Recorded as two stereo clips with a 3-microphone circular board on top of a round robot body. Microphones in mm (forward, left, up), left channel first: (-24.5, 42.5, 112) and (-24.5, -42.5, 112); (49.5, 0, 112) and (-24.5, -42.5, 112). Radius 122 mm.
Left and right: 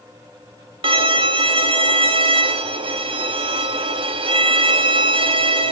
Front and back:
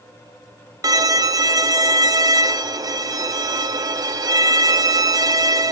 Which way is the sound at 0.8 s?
105° right.